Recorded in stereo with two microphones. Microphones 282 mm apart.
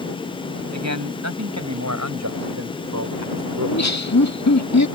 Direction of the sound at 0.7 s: 75° right (ahead or behind).